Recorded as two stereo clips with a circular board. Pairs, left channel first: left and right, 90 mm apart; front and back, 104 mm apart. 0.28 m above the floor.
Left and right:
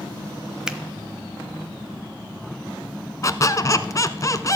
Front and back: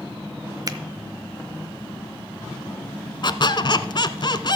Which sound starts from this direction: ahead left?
A squeak, at 3.2 s.